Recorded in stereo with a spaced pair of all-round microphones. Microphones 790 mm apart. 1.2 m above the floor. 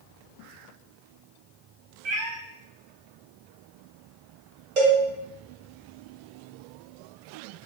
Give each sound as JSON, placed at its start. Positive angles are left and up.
{"t": 2.0, "sound": "a cat meowing", "side_deg": -40, "distance_m": 0.5}
{"t": 4.8, "sound": "a cowbell", "side_deg": -40, "distance_m": 1.2}